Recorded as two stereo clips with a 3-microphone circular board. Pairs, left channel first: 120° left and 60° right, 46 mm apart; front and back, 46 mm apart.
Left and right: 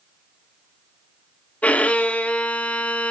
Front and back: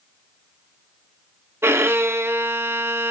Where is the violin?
175° left, 0.7 m.